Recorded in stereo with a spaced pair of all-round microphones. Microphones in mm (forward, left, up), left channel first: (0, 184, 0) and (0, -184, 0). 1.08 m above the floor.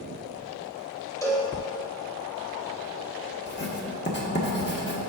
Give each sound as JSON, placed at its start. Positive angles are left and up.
{"t": 1.2, "sound": "a cowbell", "side_deg": 10, "distance_m": 1.5}
{"t": 3.5, "sound": "writing", "side_deg": 30, "distance_m": 1.3}